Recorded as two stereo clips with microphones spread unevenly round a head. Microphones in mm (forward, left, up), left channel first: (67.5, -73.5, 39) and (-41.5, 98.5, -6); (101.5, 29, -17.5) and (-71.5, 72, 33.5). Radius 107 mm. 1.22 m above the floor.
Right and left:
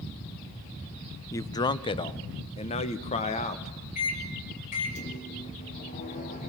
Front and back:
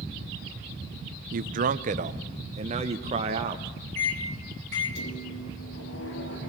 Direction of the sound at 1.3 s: 145° right.